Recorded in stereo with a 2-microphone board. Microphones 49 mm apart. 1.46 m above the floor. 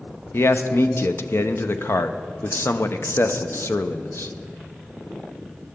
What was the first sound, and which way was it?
A man speaking, 55° left (ahead or behind).